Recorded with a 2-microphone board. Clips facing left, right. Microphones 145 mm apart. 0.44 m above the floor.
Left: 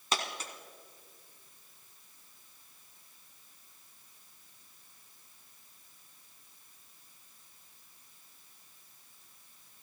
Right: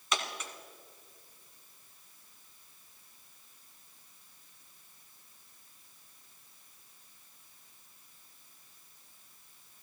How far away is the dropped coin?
About 1.4 m.